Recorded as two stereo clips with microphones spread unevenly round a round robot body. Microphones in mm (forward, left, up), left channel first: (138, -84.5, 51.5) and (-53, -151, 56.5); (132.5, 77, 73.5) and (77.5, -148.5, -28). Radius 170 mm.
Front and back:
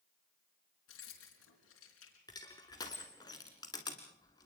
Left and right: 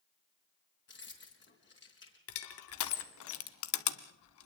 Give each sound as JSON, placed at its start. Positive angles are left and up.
{"t": 0.9, "sound": "keys jangling", "azimuth_deg": 30, "distance_m": 4.0}
{"t": 2.3, "sound": "crushing", "azimuth_deg": 100, "distance_m": 0.8}